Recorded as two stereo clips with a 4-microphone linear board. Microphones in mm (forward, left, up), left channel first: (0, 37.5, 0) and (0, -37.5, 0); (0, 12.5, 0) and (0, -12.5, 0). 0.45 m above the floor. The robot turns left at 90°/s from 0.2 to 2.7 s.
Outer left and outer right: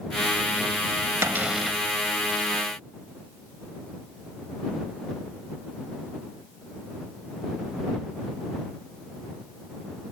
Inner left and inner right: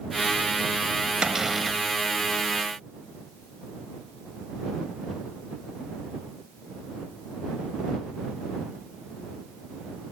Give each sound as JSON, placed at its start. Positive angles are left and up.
{"t": 1.2, "sound": "a cupboard door", "azimuth_deg": -140}